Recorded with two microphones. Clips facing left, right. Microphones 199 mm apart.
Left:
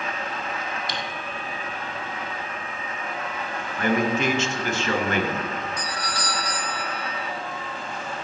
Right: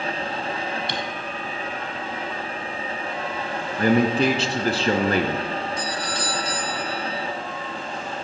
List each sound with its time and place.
0.9 s typing on a keyboard: 65° right (ahead or behind), 2 m
3.8 s a man speaking: 35° right (ahead or behind), 1.4 m
5.8 s a doorbell: 25° right (ahead or behind), 2.5 m